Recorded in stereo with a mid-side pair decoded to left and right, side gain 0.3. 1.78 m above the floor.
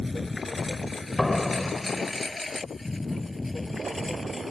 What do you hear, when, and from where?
0.0 s a lawn mower: 30° left; by 4.5 s 20° left
1.2 s a door slam: 10° left